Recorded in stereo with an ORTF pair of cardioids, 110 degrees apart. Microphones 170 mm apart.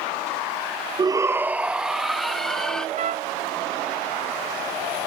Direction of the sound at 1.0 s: 25° right.